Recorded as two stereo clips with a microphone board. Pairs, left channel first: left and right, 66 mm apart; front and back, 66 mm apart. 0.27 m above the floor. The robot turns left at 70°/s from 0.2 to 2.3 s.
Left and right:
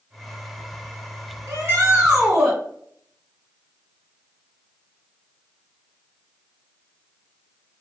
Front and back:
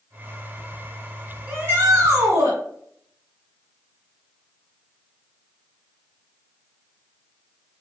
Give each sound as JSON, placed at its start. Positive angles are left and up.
{"t": 1.5, "sound": "a shout", "azimuth_deg": -115, "distance_m": 1.8}